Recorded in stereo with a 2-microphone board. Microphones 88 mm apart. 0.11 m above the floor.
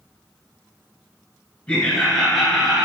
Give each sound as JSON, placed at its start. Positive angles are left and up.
{"t": 1.7, "sound": "laughter", "side_deg": 15, "distance_m": 1.4}